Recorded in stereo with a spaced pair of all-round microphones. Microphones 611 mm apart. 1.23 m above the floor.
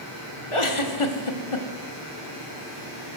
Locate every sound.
0.5 s a giggle: 50° left (ahead or behind), 1.5 m